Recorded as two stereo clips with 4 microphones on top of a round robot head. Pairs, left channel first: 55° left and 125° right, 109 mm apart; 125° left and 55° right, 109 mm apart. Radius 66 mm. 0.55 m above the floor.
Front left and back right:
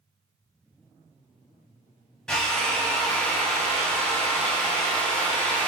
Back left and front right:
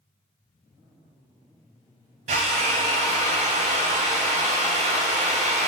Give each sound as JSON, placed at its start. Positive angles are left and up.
{"t": 2.3, "sound": "a drill", "azimuth_deg": -30, "distance_m": 0.7}